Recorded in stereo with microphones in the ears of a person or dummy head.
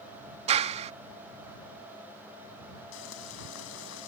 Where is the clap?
35° right (ahead or behind).